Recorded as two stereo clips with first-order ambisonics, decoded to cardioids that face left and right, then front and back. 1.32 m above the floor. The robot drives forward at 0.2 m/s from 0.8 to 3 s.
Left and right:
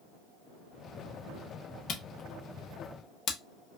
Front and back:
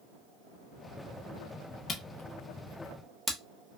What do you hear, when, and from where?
1.9 s a camera shutter: 55° left, 0.5 m; by 3.4 s 95° left, 0.5 m